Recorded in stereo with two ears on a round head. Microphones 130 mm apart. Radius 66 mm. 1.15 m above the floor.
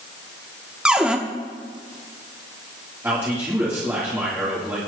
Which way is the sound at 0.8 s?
5° right (ahead or behind).